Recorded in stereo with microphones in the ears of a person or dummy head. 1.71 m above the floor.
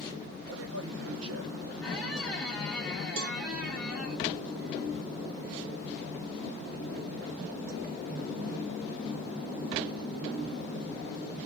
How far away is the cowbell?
About 1.6 m.